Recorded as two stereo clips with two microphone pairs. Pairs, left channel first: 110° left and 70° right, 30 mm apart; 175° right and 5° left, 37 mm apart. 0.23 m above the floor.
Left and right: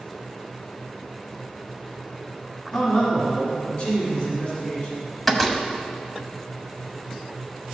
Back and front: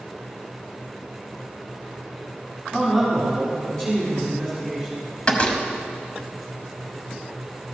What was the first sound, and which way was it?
A man speaking, 105° left.